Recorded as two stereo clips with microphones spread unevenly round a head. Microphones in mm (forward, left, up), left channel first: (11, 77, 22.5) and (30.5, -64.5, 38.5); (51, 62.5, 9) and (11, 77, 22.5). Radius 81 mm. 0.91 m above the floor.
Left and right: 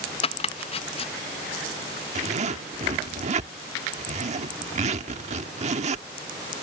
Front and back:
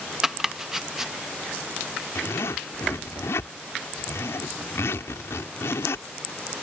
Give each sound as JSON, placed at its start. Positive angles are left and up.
{"t": 0.2, "sound": "chopping", "azimuth_deg": 70}
{"t": 2.1, "sound": "a zipper", "azimuth_deg": -45}